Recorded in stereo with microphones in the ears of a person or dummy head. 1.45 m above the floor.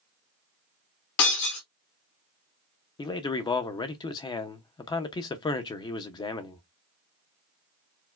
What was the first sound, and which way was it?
Breaking glass, 45° left (ahead or behind).